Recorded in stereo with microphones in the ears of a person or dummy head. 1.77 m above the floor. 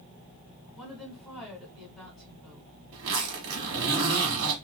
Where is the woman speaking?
Centre (ahead or behind), 1.5 m.